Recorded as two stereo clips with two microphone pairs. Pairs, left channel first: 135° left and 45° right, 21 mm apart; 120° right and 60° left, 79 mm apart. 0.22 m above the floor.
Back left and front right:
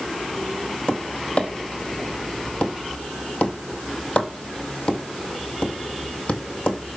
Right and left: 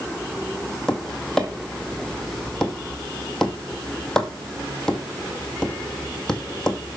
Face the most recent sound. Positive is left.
turn(degrees=160)